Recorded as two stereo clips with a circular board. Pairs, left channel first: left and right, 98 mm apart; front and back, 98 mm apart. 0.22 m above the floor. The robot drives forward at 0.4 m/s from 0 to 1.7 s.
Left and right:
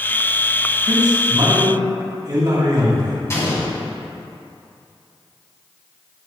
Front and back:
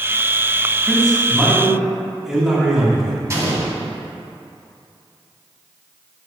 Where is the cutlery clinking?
No cutlery clinking in this recording.